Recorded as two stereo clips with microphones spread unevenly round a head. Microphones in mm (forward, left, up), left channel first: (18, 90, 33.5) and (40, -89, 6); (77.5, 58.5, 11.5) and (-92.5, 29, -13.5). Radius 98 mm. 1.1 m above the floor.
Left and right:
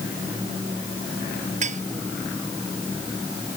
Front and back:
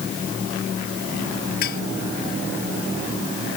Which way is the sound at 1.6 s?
35° right.